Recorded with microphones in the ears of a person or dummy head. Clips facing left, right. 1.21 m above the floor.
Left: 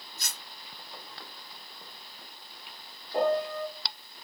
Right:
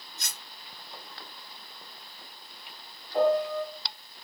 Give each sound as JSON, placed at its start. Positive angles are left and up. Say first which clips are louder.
{"t": 0.2, "sound": "cutlery clinking", "louder": "left 1 dB", "side_deg": -60, "distance_m": 1.4}
{"t": 3.1, "sound": "a piano", "louder": "right 3 dB", "side_deg": 30, "distance_m": 1.2}